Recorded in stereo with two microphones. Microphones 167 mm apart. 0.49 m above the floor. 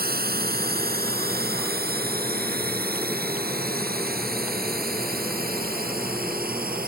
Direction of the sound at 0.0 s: 75° right (ahead or behind).